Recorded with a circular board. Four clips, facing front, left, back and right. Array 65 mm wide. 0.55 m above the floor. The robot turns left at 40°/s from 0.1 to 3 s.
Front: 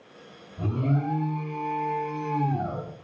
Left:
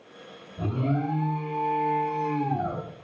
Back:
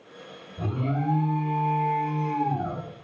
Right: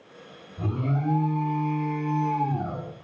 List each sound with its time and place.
0.6 s an alarm: 145° left, 2 m; by 2.8 s 55° left, 2 m